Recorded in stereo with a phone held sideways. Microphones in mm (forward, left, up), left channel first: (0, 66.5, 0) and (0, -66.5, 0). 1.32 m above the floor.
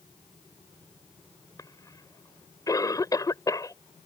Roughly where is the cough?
Left.